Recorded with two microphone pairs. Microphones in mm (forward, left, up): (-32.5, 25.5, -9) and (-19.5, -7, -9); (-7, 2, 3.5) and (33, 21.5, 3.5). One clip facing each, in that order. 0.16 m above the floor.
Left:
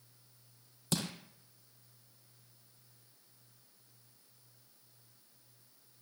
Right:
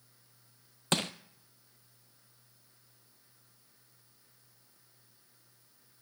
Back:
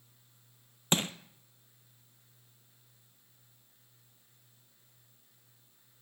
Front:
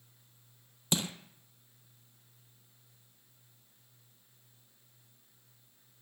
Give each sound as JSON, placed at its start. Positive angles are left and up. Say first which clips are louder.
{"t": 0.9, "sound": "crushing", "louder": "right 5 dB, back 3 dB", "azimuth_deg": -110, "distance_m": 0.8}